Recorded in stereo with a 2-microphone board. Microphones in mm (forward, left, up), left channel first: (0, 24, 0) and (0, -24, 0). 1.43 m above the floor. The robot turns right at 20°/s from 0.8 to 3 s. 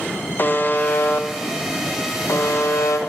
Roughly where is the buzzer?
Ahead left.